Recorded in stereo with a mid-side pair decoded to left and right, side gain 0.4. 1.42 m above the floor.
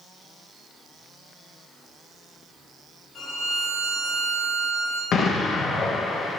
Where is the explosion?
65° left, 1.3 m.